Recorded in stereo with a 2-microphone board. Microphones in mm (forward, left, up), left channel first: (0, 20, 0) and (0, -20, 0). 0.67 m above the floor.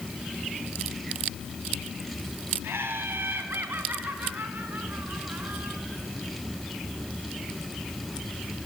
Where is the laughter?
75° right (ahead or behind), 5 m; by 5.8 s 60° right (ahead or behind), 8.5 m.